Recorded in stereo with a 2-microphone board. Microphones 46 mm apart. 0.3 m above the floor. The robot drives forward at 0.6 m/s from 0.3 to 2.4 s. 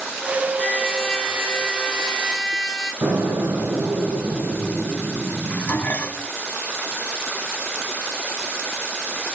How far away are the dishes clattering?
About 2.0 m.